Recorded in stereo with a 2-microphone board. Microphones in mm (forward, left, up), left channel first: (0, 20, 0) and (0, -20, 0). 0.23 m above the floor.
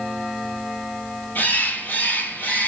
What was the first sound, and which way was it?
A bird, 55° left (ahead or behind).